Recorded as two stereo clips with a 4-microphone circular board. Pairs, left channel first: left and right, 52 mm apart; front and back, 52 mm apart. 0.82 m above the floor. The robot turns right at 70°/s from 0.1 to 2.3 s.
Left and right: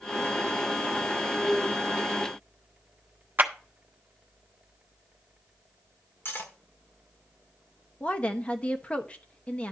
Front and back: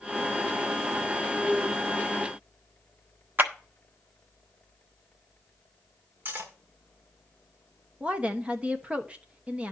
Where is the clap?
135° right, 1.1 m.